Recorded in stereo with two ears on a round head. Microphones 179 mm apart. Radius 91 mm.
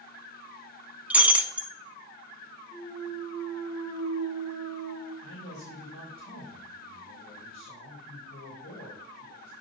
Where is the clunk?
30° left (ahead or behind), 1.6 m.